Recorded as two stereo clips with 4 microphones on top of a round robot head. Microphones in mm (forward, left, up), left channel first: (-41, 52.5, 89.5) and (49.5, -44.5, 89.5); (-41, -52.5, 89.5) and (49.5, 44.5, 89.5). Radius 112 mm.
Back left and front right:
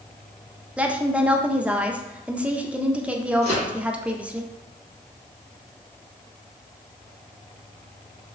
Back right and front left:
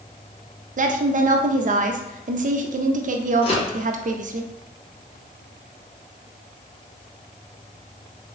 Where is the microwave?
90° right, 1.7 m.